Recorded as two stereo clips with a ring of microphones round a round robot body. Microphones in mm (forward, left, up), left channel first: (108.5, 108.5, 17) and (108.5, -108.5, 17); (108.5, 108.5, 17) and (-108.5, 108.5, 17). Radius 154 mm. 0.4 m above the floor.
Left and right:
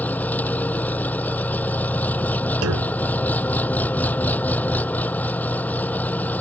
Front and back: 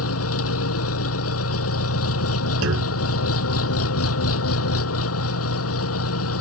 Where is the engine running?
5° left.